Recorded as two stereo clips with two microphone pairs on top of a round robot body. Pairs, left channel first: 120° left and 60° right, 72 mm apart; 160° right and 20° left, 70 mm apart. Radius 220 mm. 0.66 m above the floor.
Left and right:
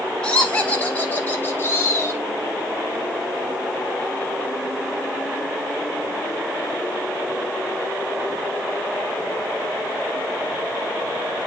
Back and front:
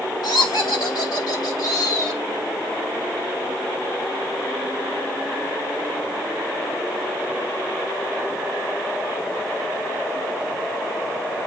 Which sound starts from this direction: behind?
Laughter, at 0.2 s.